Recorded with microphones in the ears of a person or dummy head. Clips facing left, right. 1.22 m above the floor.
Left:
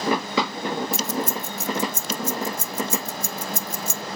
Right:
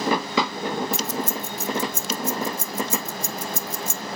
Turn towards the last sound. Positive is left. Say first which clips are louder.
# left 1 dB
turn(degrees=60)  # may be behind; listen again after turning